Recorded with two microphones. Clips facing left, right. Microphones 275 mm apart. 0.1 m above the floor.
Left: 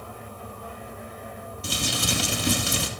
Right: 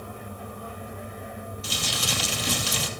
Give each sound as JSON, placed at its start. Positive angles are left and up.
{"t": 1.6, "sound": "crumpling", "side_deg": 60, "distance_m": 1.8}